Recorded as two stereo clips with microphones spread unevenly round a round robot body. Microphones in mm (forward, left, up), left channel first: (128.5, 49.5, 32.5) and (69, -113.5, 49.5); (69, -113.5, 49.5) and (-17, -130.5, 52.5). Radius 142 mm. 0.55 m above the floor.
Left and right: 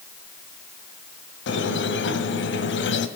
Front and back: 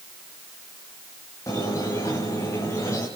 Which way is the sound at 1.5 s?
85° left.